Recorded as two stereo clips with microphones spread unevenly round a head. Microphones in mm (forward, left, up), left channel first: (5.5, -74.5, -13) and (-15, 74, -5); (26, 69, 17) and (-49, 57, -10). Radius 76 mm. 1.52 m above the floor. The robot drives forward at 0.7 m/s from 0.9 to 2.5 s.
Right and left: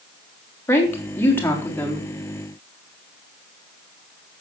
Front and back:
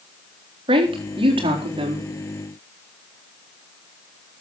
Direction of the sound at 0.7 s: 160° right.